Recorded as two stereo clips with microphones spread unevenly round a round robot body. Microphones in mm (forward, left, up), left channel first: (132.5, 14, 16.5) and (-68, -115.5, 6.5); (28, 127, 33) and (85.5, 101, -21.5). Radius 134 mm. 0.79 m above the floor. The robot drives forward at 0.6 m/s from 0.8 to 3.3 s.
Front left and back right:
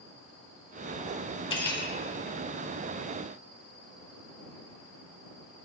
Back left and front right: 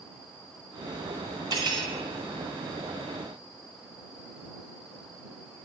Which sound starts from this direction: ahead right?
Cutlery clinking, at 1.5 s.